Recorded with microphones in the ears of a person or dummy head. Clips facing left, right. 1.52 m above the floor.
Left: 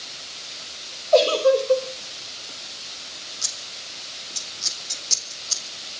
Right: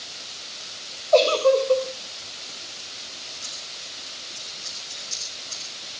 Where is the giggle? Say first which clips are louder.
Even; 10° left (ahead or behind), 3 m.